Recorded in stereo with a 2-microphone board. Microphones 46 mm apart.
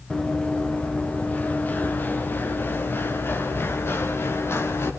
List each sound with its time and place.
0.1 s running footsteps: 20° left (ahead or behind), 3 m; by 4.9 s 65° left (ahead or behind), 4.5 m